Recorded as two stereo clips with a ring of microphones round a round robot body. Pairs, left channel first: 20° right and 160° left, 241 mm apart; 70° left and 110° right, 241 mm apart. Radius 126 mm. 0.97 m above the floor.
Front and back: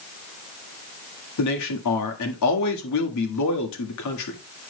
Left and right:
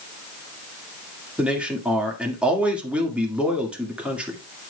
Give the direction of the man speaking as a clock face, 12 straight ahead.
1 o'clock.